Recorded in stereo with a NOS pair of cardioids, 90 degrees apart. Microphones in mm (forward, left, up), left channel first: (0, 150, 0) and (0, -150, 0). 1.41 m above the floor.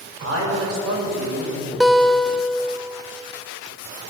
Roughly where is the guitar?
Ahead.